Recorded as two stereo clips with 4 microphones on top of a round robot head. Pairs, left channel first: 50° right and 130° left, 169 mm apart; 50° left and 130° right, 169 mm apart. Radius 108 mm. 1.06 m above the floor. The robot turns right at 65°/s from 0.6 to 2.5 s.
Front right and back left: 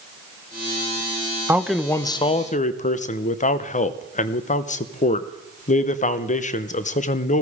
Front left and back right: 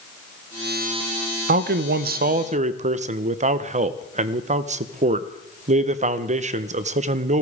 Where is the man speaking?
155° right, 0.8 m; by 7.4 s 90° right, 0.8 m.